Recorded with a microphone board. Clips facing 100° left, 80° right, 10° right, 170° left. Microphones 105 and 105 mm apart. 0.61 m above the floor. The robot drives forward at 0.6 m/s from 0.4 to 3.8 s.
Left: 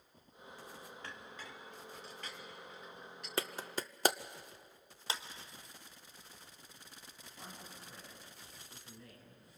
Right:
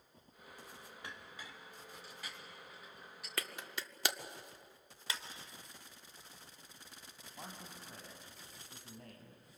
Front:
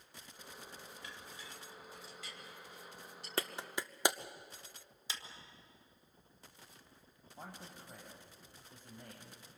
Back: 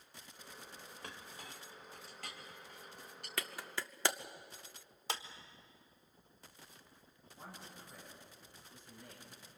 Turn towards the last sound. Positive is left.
turn(degrees=-45)